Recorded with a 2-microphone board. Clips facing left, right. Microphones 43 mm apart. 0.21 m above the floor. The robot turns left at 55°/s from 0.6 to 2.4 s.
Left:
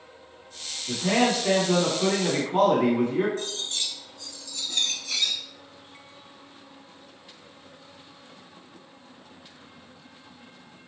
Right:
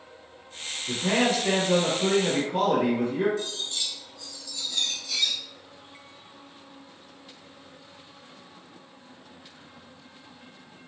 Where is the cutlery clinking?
50° left (ahead or behind), 1.2 m.